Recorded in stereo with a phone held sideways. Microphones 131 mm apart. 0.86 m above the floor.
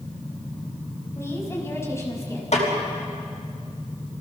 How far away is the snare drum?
About 5 m.